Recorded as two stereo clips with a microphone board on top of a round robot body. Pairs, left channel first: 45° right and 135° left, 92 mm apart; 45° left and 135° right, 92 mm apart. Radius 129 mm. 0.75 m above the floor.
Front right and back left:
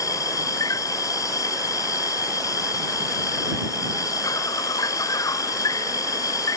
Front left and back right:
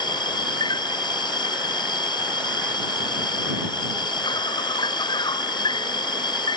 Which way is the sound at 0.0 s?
10° left.